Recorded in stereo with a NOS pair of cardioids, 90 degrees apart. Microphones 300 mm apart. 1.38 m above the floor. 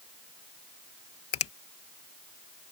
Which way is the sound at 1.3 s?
50° left.